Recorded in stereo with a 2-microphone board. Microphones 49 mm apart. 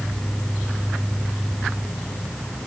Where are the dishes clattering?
No dishes clattering in this recording.